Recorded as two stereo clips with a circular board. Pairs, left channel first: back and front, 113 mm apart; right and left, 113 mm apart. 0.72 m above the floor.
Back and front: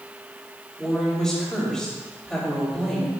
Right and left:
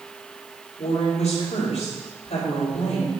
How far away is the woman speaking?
About 4.5 m.